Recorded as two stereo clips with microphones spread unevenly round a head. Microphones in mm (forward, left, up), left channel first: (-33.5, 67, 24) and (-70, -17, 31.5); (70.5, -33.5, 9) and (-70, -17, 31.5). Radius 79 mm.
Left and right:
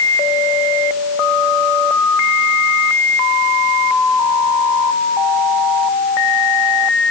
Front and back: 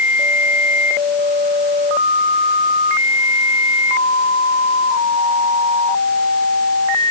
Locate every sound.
Only background noise.